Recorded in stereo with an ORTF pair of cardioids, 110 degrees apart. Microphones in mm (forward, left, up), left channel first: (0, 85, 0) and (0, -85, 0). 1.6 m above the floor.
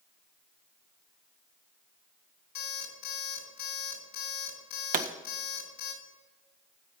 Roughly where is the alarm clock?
Left.